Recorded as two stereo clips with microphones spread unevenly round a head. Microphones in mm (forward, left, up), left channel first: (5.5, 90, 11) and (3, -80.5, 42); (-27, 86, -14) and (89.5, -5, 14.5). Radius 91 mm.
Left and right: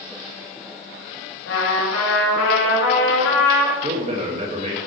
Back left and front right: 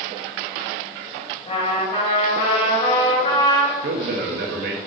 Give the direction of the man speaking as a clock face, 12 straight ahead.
1 o'clock.